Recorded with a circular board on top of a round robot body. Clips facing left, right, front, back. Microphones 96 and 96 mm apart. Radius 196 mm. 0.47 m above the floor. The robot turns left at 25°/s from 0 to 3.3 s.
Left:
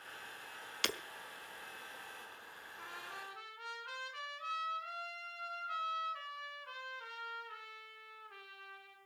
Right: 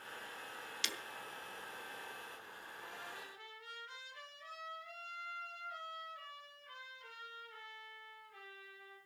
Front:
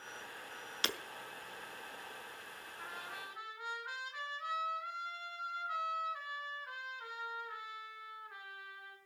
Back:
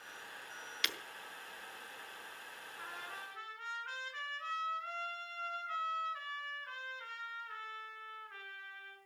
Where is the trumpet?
90° left, 5.5 m; by 9.0 s 80° left, 5.5 m.